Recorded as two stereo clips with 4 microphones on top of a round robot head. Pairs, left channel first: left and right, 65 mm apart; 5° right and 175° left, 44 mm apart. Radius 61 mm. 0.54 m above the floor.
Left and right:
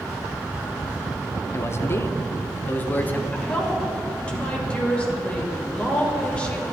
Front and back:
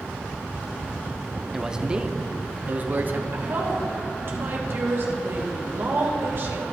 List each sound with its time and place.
1.5 s a man speaking: 100° left, 1.0 m; by 3.2 s 150° left, 1.4 m
3.3 s a woman speaking: 160° left, 3 m